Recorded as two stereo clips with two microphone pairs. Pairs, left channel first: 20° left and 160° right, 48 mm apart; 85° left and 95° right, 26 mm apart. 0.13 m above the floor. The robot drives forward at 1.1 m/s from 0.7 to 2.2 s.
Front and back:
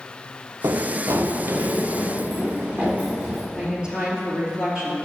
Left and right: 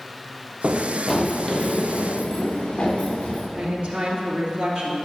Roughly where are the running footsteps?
Behind right.